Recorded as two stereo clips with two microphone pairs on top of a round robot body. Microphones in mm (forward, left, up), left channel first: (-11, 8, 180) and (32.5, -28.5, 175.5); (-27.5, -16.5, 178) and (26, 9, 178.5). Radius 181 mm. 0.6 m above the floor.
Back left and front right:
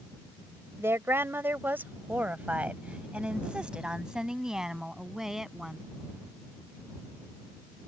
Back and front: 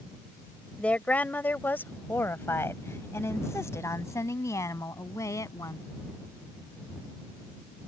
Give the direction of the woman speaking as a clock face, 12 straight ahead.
3 o'clock.